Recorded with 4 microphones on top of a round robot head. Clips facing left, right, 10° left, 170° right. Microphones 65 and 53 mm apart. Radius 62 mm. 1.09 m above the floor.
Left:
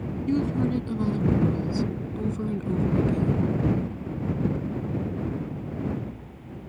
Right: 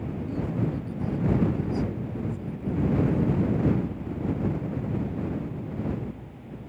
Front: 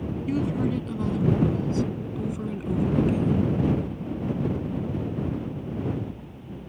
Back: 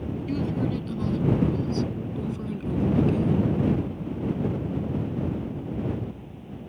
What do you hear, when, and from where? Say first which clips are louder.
0.3 s a woman speaking: left 6 dB, front 2 dB; 80° left; by 3.5 s 85° left